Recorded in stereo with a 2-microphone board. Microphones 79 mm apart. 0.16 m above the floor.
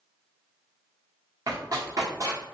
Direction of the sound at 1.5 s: 45° right (ahead or behind).